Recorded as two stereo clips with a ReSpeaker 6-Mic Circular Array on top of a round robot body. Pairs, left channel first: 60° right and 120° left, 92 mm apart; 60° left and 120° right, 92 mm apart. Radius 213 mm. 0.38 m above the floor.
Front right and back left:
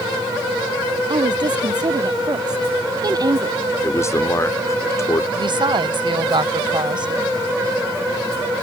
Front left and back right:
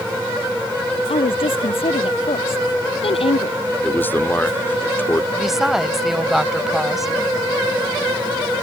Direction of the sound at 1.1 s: 80° left.